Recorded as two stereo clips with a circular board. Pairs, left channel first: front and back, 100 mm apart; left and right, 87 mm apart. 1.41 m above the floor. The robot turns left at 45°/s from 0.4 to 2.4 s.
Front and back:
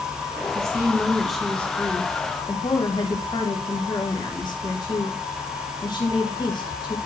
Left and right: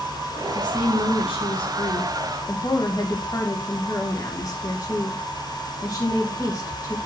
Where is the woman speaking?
125° left, 1.8 m; by 7.0 s 45° left, 1.8 m.